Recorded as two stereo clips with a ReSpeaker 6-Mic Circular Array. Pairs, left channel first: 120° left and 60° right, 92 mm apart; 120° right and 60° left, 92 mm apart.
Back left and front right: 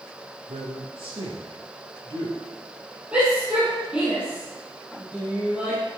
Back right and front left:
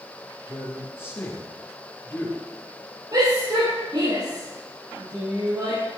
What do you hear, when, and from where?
0.5 s a man speaking: 60° right, 4 m
3.1 s a shout: 15° left, 5 m